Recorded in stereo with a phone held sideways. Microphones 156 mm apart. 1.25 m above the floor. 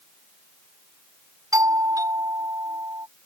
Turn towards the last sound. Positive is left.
turn(degrees=-20)  # may be behind; listen again after turning